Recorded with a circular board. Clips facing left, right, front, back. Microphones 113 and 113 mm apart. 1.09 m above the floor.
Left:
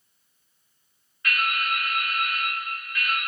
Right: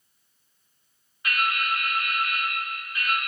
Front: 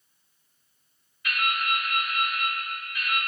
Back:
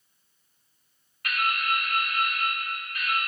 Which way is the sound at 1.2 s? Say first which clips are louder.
Even, back 1 dB; 160° right.